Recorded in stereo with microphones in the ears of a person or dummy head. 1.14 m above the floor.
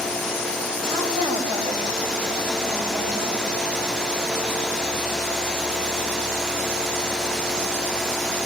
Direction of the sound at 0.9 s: 30° right (ahead or behind).